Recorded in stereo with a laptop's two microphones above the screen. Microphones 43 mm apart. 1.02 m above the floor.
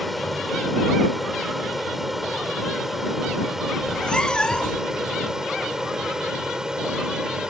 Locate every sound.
0.0 s an aircraft: centre (ahead or behind); by 7.5 s 15° right (ahead or behind)
3.8 s a cat meowing: 20° left (ahead or behind)